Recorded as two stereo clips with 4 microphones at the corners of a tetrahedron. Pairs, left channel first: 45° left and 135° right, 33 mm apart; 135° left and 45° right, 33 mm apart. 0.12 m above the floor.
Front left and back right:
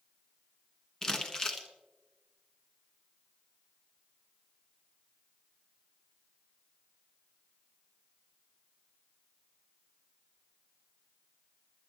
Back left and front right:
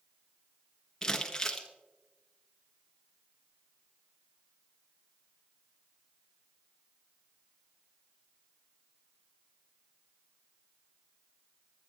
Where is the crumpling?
90° left, 1.3 m.